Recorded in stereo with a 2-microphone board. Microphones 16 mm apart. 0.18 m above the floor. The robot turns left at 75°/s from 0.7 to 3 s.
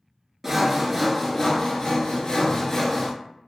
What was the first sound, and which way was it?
Sawing, 165° right.